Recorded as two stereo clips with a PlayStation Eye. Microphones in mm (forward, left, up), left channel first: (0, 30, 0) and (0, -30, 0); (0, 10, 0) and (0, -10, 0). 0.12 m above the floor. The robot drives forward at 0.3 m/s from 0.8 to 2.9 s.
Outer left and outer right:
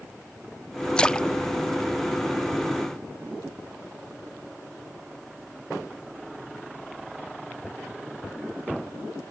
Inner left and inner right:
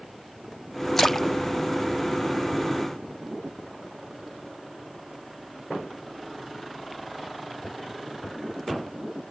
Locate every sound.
1.0 s a splash: 15° left (ahead or behind); by 2.7 s 10° left (ahead or behind)